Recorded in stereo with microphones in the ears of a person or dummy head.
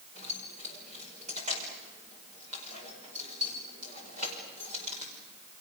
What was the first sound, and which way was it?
Keys jangling, 40° right (ahead or behind).